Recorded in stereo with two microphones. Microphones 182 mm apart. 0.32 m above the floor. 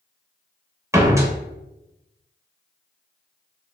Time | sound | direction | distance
0.9 | a door slam | 15° right (ahead or behind) | 0.6 m